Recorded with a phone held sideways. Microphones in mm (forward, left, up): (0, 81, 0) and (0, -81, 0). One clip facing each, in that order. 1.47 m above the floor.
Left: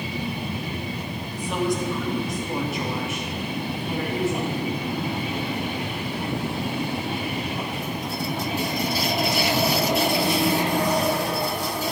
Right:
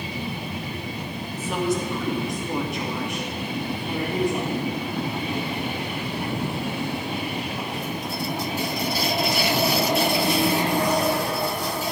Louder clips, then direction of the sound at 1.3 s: Even; 5° right (ahead or behind).